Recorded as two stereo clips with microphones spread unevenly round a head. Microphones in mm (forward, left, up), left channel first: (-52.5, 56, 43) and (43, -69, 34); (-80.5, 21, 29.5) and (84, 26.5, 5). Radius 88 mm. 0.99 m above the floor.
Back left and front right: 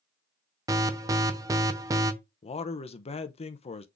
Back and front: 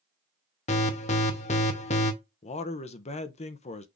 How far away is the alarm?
About 0.7 m.